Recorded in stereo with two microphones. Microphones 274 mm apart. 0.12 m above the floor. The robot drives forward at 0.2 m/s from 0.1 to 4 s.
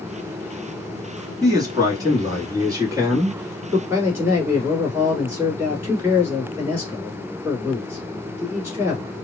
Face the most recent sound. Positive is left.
turn(degrees=-10)  # may be behind; listen again after turning